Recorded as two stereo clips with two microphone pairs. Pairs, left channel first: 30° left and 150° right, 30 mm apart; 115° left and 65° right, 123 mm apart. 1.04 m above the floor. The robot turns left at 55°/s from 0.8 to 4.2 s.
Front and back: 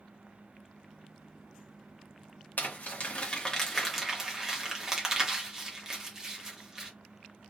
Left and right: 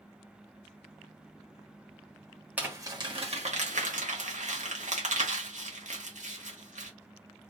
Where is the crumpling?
15° left, 1.2 m; by 6.9 s 75° right, 1.2 m.